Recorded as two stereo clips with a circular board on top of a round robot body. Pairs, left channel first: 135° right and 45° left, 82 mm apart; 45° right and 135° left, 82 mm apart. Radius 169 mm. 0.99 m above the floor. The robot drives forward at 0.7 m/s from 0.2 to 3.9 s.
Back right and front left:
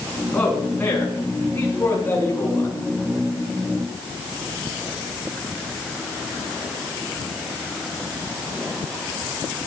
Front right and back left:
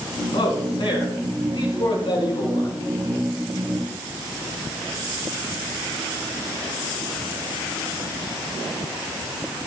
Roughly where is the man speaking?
Ahead right.